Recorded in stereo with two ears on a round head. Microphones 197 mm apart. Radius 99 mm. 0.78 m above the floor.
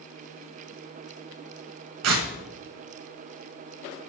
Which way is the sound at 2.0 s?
75° right (ahead or behind).